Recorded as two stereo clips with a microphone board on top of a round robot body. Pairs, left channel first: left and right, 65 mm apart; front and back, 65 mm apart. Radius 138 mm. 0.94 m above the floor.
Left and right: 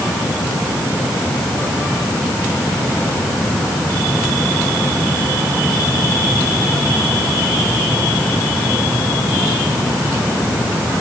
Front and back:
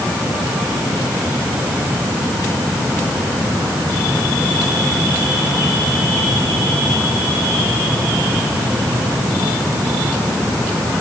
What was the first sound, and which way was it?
Only background noise.